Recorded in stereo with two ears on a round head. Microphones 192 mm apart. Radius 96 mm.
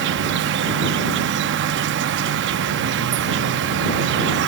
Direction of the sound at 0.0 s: 55° right (ahead or behind).